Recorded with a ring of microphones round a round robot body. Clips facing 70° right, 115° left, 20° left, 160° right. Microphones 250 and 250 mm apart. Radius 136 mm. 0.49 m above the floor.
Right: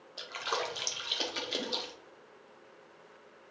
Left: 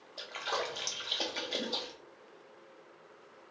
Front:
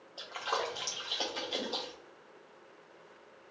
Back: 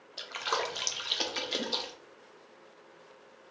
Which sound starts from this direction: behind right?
A splash, at 0.2 s.